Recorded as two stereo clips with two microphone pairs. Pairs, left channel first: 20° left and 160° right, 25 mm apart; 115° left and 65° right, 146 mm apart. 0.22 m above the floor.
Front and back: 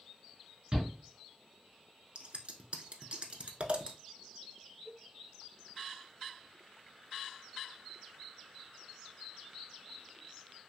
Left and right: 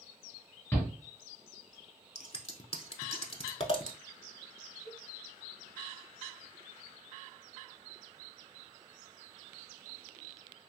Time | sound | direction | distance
0.7 | a shout | 170° left | 1.7 m
2.1 | scissors | 160° left | 0.5 m
4.8 | a cowbell | 130° left | 1.1 m